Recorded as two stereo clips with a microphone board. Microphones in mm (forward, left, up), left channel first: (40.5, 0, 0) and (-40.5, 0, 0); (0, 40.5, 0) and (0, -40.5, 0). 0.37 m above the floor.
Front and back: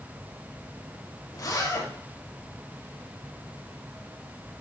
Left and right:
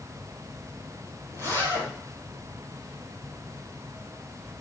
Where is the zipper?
45° right, 4.5 m.